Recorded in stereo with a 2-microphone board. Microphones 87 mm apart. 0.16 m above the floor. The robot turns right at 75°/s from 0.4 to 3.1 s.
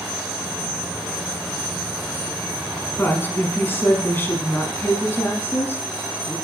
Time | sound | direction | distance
3.0 | a woman speaking | 20° left (ahead or behind) | 1.2 m